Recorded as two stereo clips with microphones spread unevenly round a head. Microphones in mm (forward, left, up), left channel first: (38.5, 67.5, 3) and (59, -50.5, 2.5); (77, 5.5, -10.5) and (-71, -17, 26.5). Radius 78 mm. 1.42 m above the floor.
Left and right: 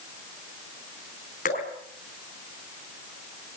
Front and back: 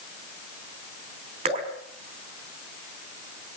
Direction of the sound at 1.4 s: 140° left.